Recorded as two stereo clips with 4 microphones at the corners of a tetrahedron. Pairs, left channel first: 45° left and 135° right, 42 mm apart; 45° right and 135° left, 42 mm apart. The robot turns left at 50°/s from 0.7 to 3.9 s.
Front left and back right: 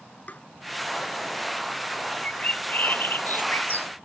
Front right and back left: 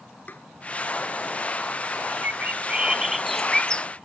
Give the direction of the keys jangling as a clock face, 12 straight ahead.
I don't hear keys jangling.